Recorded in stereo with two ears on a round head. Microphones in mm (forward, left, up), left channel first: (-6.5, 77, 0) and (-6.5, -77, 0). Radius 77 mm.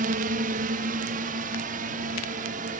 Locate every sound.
0.0 s a drone: 50° right (ahead or behind)